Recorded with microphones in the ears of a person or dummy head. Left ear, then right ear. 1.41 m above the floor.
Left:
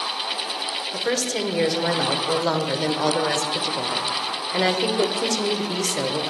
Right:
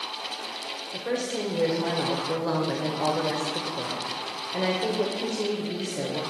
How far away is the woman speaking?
About 0.8 m.